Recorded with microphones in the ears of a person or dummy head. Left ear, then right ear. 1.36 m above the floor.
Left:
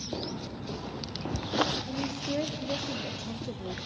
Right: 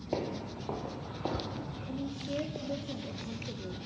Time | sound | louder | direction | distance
0.1 | footsteps | right 6 dB | 45° right (ahead or behind) | 2 m
1.9 | a woman speaking | left 5 dB | 35° left (ahead or behind) | 1.4 m